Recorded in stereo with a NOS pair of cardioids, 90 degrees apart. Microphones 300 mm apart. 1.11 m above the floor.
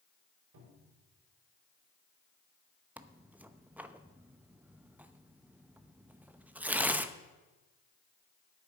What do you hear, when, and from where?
0.5 s a cupboard door: 65° right, 5 m
3.0 s tearing paper: 5° right, 0.7 m